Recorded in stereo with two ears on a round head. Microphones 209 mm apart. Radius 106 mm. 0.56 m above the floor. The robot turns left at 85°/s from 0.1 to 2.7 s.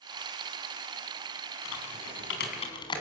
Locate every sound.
1.6 s typing on a keyboard: 70° left (ahead or behind), 4 m; by 3.0 s 20° left (ahead or behind), 4 m